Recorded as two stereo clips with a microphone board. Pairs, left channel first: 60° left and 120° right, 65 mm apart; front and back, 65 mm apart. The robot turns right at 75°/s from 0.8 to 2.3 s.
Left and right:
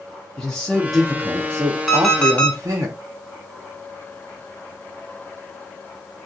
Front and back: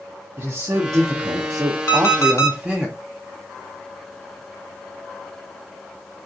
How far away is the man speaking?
About 0.8 m.